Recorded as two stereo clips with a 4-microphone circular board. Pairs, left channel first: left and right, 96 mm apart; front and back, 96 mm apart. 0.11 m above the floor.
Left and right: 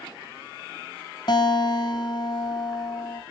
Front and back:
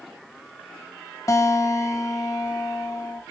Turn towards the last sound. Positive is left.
turn(degrees=55)